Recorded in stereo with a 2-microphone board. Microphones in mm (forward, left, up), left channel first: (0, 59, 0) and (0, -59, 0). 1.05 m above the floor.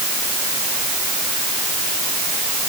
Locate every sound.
Only background noise.